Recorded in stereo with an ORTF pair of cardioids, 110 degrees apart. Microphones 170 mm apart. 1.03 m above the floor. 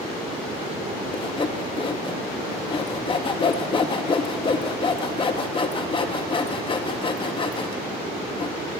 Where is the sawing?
30° left, 1.3 m.